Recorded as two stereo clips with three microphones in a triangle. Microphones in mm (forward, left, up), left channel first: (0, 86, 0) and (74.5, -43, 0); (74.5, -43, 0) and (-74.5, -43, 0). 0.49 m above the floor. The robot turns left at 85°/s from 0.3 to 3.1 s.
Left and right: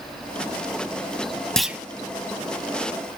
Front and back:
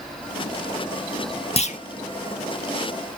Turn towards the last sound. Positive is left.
turn(degrees=-95)